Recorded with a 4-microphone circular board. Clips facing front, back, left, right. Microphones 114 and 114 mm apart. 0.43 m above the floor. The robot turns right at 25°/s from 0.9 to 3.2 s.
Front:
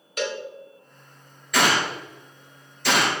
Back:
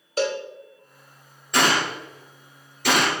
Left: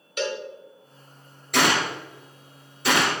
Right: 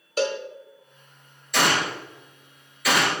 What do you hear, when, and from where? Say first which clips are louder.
0.2 s a cowbell: back 4 dB, right 3 dB; 130° right, 0.5 m
1.5 s a gunshot: even, left 1 dB; 120° left, 2 m; by 3.1 s 155° left, 2 m